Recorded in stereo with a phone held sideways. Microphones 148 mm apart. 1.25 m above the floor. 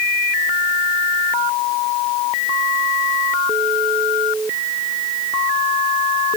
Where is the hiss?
No hiss in this recording.